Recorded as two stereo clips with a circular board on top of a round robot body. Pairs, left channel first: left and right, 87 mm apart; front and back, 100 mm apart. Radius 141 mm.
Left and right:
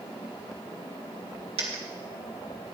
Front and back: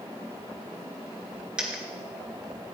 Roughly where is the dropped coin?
Right.